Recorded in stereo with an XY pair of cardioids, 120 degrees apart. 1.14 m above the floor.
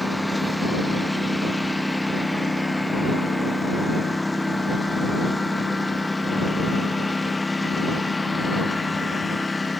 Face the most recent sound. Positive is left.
turn(degrees=15)